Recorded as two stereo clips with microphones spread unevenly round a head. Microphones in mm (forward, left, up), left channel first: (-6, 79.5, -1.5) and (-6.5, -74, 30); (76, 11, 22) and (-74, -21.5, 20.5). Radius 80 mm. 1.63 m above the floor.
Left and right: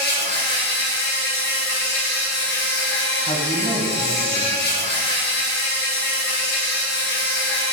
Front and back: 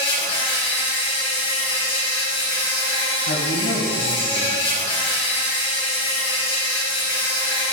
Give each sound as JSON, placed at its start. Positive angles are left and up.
{"t": 0.0, "sound": "an insect", "azimuth_deg": 70, "distance_m": 3.5}
{"t": 3.3, "sound": "a man speaking", "azimuth_deg": 30, "distance_m": 1.4}